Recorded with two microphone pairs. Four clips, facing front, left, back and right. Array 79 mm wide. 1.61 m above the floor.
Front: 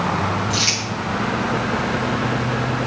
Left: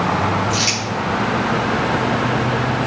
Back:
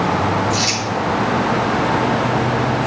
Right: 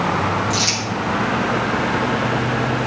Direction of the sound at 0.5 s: 50° left.